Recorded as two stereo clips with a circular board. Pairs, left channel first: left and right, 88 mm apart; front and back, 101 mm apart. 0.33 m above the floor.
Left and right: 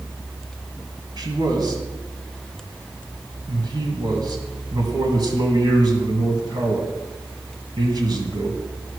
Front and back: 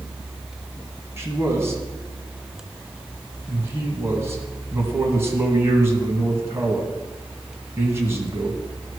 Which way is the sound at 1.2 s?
120° right.